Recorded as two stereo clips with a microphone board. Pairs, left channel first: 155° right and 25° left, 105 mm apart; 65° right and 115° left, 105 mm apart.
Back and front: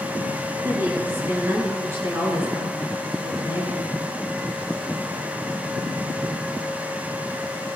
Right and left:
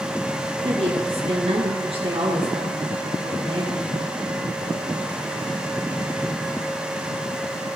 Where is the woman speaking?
90° left, 4.5 m.